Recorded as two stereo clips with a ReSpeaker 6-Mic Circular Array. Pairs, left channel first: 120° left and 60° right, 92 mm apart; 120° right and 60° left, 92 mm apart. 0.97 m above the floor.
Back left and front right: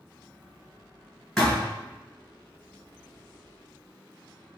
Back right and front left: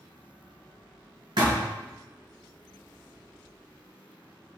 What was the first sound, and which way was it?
A thud, 35° left.